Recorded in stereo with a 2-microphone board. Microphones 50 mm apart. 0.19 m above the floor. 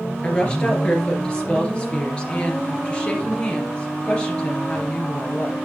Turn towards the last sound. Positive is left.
turn(degrees=20)  # may be behind; listen again after turning